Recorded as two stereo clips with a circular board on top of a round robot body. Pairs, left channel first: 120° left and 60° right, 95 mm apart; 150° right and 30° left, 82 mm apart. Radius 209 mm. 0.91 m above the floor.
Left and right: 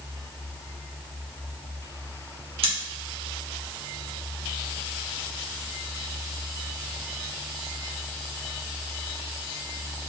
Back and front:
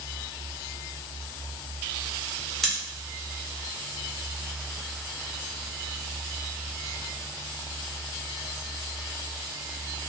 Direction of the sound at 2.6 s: 65° right.